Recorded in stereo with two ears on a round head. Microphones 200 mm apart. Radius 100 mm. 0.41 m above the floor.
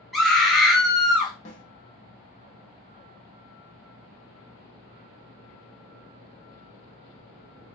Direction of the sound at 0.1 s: Centre (ahead or behind).